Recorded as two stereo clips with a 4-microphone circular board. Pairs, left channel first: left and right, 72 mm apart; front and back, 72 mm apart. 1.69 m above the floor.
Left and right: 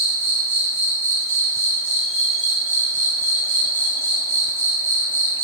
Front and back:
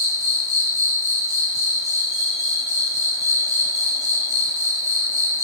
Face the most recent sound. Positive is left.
turn(degrees=-145)